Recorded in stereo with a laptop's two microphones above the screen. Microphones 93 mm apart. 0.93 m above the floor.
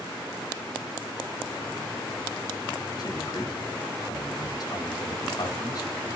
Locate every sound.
3.0 s a man speaking: 45° left (ahead or behind), 1.0 m